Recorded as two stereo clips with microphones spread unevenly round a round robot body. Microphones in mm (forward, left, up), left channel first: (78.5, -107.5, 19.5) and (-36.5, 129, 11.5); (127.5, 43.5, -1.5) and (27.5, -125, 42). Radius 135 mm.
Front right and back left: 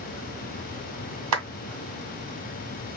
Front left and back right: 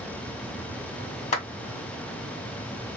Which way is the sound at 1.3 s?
110° left.